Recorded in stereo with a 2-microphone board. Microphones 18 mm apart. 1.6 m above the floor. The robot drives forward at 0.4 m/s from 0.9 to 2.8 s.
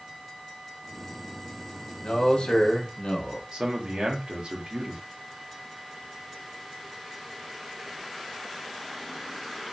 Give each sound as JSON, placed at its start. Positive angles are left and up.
{"t": 2.0, "sound": "a man speaking", "side_deg": 65, "distance_m": 1.2}
{"t": 3.5, "sound": "a man speaking", "side_deg": -65, "distance_m": 1.0}